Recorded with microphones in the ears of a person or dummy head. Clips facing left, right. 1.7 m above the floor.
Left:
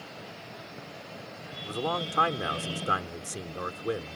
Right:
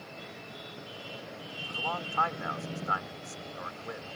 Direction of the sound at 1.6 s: 45° left (ahead or behind).